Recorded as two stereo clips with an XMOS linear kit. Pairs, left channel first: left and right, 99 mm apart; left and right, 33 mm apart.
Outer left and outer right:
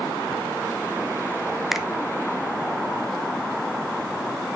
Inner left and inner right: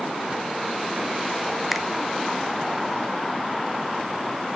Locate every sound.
1.7 s a finger snap: centre (ahead or behind), 0.9 m